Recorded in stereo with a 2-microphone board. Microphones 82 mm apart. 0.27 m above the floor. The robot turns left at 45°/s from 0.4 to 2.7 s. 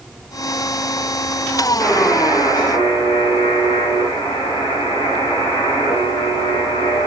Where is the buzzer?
155° left, 8 m; by 7.1 s 115° left, 8 m.